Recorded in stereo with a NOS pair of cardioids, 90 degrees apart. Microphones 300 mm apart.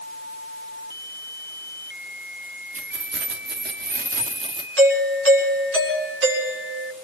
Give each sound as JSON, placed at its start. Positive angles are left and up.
{"t": 2.7, "sound": "keys jangling", "azimuth_deg": -45, "distance_m": 2.5}
{"t": 4.8, "sound": "a doorbell", "azimuth_deg": -45, "distance_m": 7.5}